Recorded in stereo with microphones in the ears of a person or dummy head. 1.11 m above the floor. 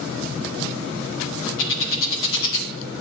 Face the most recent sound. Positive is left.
turn(degrees=70)  # may be behind; listen again after turning